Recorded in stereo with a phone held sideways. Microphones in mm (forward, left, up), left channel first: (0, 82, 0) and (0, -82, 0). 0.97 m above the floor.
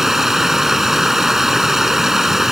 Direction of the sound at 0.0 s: Centre (ahead or behind).